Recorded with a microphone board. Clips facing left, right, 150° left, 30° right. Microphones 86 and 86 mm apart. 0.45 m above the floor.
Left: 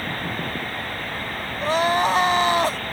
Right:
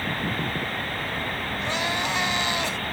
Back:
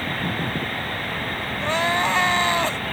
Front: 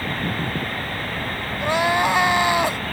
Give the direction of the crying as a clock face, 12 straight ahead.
10 o'clock.